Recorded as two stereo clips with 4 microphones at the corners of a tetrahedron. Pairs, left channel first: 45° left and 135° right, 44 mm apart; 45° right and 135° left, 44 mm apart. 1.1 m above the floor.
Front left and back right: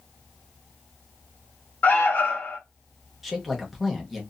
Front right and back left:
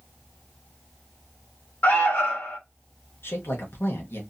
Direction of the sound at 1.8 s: Straight ahead.